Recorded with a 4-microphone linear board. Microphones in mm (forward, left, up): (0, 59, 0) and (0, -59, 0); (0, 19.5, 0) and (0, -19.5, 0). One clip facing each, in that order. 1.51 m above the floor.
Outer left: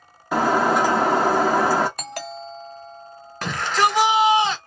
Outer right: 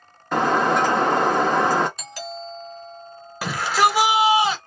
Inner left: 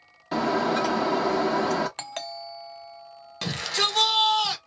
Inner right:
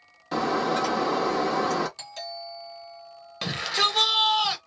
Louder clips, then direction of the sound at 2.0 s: Outer left 1 dB, inner left 2 dB; 60° left (ahead or behind).